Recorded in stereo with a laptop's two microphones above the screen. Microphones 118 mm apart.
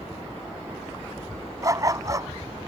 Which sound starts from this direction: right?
A dog barking, at 1.6 s.